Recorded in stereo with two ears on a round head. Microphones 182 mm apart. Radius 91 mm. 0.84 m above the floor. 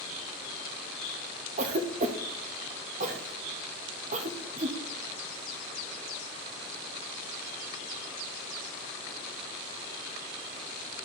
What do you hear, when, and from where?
1.6 s a cough: 35° right (ahead or behind), 0.8 m